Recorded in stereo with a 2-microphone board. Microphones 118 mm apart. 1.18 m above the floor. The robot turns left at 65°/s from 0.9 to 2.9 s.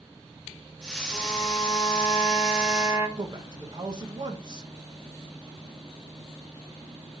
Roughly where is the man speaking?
Right.